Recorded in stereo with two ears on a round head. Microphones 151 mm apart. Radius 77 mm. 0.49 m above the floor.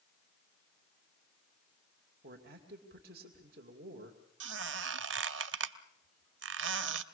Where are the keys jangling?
I don't hear keys jangling.